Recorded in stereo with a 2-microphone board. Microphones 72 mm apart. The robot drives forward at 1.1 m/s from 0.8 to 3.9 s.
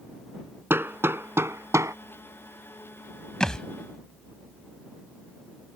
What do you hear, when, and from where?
0.7 s hammering: 30° right (ahead or behind); by 1.9 s 45° right (ahead or behind)
3.4 s a thud: 10° left (ahead or behind)